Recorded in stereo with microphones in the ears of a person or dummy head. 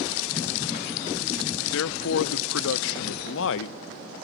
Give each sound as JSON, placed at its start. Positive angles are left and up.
{"t": 1.7, "sound": "a man speaking", "side_deg": 75, "distance_m": 0.5}